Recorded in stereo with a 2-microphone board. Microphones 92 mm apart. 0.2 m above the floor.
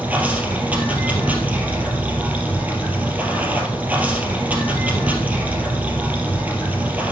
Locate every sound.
0.0 s running water: 15° right (ahead or behind), 2.5 m